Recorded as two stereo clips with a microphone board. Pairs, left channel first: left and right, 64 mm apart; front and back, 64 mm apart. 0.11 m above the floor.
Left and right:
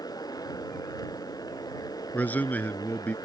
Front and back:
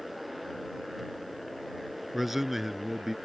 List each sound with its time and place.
0.0 s a motorcycle: 90° left
2.1 s a man speaking: 95° left